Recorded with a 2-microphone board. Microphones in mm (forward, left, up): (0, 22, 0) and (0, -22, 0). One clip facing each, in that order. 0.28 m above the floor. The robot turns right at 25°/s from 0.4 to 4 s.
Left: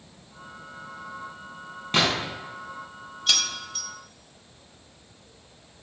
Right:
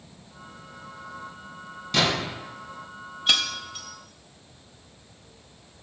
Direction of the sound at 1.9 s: 40° left (ahead or behind).